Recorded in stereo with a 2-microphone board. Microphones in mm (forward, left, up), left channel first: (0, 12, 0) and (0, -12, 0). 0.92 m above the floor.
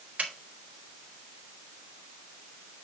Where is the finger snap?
70° right (ahead or behind), 2.5 m.